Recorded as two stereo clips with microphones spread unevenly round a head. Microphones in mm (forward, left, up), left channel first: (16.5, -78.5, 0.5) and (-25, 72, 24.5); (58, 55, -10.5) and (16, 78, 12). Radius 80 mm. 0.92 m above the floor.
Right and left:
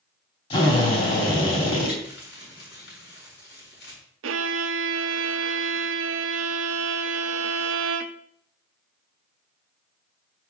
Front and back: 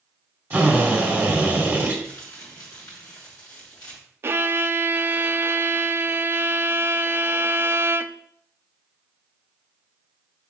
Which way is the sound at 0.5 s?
130° right.